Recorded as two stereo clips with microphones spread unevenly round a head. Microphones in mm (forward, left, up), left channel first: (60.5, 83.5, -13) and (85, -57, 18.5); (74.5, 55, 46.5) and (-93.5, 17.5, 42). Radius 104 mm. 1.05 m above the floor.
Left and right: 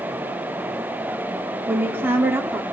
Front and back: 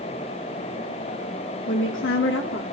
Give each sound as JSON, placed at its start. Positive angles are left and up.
{"t": 1.7, "sound": "a woman speaking", "azimuth_deg": 0, "distance_m": 3.0}